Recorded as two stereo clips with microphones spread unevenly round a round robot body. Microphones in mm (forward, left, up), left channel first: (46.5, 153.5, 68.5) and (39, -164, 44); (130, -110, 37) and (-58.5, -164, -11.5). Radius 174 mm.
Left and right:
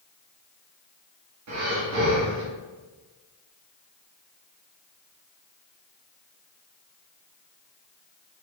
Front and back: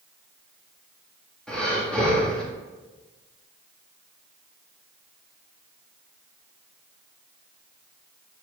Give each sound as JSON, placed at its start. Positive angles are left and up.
{"t": 1.5, "sound": "breathing", "azimuth_deg": -80, "distance_m": 1.7}